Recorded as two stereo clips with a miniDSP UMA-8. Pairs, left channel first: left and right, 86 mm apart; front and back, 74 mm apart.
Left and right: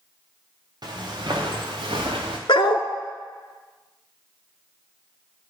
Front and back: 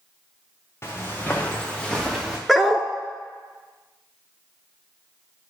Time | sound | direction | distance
0.8 | footsteps | 55° right | 2 m
2.5 | a dog barking | 85° left | 0.8 m